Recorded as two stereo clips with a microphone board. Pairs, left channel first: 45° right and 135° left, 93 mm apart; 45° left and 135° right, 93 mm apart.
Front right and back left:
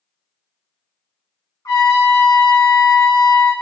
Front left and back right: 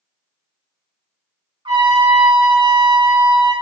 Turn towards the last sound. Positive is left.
turn(degrees=-100)